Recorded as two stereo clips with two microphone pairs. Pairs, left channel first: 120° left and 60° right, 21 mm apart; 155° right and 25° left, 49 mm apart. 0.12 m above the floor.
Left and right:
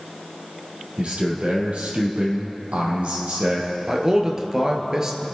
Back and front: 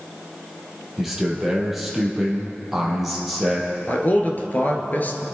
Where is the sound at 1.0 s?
60° right, 3.5 m.